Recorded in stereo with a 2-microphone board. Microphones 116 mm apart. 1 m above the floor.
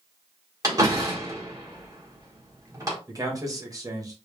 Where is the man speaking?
30° right (ahead or behind), 1.4 m.